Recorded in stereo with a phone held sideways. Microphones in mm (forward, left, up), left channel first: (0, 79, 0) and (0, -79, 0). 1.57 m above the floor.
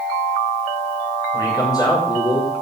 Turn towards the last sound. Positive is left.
turn(degrees=25)  # may be behind; listen again after turning